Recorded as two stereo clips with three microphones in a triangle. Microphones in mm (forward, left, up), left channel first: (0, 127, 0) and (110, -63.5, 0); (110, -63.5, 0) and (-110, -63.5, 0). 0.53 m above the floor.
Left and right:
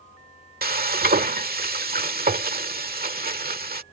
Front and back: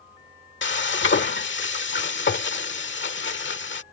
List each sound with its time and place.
0.6 s frying: 20° right